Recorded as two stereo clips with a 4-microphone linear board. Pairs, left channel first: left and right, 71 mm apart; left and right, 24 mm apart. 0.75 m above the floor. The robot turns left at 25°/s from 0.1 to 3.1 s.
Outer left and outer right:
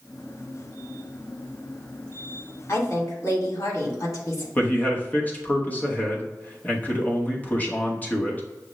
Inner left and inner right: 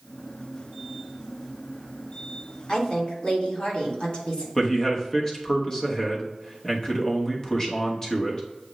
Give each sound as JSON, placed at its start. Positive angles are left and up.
{"t": 2.7, "sound": "a woman speaking", "side_deg": 45, "distance_m": 2.0}
{"t": 4.5, "sound": "a man speaking", "side_deg": 25, "distance_m": 0.9}